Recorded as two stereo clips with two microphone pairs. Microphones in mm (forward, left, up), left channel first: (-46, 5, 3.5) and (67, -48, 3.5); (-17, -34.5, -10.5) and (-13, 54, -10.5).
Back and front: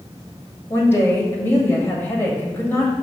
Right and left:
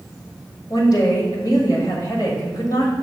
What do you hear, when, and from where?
0.7 s a woman speaking: 130° right, 1.7 m